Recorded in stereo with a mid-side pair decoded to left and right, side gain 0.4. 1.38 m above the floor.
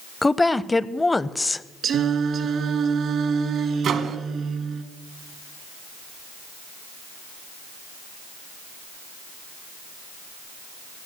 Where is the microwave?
70° right, 1.2 m.